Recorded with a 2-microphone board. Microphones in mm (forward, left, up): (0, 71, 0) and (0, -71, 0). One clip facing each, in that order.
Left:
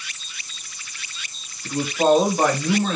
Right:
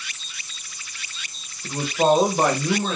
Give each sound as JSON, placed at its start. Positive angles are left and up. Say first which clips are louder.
{"t": 1.6, "sound": "a man speaking", "louder": "left 1 dB", "side_deg": -25, "distance_m": 1.1}